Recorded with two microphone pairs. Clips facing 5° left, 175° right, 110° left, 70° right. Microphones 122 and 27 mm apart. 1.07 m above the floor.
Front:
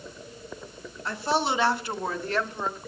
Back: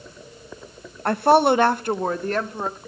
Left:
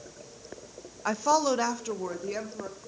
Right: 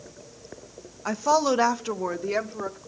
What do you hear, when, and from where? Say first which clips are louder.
1.1 s a woman speaking: back 10 dB, right 2 dB; 170° right, 0.5 m; by 2.8 s 125° right, 1.6 m